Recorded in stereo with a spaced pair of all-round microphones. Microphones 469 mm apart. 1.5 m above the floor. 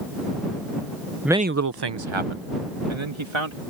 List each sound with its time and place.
1.2 s a man speaking: centre (ahead or behind); by 3.6 s 75° right (ahead or behind)